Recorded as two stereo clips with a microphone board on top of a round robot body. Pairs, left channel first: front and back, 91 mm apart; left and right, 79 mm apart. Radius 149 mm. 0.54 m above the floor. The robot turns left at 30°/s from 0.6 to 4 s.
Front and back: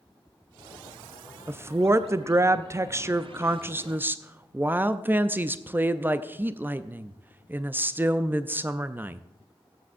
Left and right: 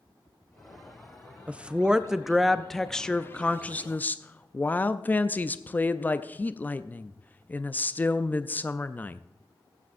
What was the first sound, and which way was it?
A woman speaking, 150° right.